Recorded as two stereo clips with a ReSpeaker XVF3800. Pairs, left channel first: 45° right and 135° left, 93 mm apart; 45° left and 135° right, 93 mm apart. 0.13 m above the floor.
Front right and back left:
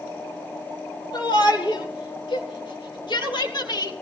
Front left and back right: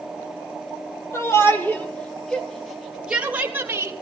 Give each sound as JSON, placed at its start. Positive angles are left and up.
{"t": 1.1, "sound": "a shout", "azimuth_deg": -15, "distance_m": 4.0}